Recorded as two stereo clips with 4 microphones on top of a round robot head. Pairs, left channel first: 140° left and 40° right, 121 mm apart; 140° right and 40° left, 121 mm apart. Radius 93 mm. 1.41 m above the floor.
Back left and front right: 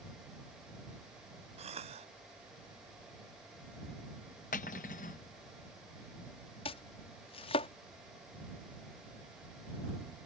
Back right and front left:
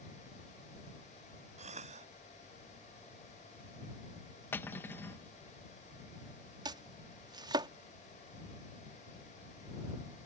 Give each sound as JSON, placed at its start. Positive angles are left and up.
{"t": 1.6, "sound": "a cough", "azimuth_deg": 5}
{"t": 4.5, "sound": "cutlery clinking", "azimuth_deg": 145}
{"t": 6.7, "sound": "chopping", "azimuth_deg": 95}